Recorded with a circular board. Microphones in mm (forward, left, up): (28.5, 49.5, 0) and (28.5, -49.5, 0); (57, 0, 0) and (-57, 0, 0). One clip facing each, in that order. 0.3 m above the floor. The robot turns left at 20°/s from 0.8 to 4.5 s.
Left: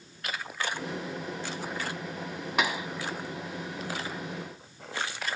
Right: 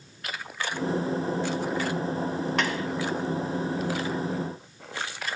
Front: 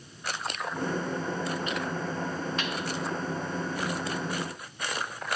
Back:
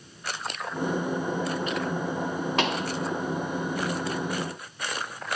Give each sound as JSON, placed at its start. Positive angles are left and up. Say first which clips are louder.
{"t": 2.6, "sound": "a pop", "louder": "left 3 dB, back 6 dB", "azimuth_deg": 170}